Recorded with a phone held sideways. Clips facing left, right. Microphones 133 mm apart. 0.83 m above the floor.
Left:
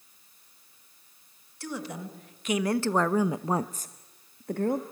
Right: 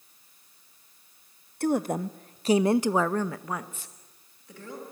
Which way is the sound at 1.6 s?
50° right (ahead or behind).